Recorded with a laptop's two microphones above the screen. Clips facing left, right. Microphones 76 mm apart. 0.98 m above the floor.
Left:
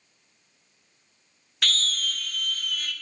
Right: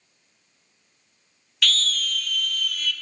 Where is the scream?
35° left (ahead or behind), 0.5 m.